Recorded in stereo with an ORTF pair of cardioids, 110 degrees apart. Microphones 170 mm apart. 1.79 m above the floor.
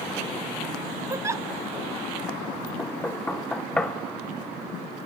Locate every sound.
1.1 s a giggle: 20° right, 0.6 m
2.8 s knocking: 5° left, 1.3 m